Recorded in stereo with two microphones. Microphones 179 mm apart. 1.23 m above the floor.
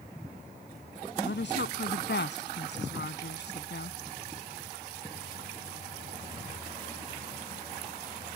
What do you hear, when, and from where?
1.2 s a woman speaking: 80° left; by 4.0 s 70° left (ahead or behind)